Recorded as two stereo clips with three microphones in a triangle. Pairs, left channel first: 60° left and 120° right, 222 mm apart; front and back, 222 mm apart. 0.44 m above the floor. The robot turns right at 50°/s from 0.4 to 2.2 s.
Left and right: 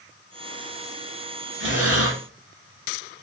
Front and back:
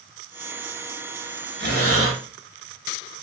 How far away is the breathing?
About 1.4 m.